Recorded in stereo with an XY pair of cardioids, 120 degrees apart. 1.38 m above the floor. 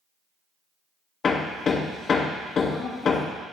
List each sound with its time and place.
1.2 s hammering: 40° left, 1.4 m